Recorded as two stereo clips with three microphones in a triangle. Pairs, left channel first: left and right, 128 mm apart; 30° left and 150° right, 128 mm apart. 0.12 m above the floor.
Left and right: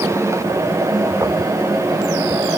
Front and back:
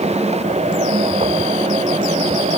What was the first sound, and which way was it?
Only background noise.